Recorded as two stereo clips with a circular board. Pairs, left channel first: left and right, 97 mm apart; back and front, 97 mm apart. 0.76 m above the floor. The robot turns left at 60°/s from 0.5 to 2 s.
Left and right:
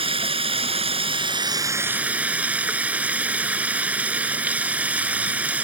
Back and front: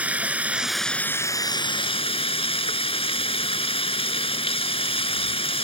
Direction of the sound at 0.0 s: 75° right.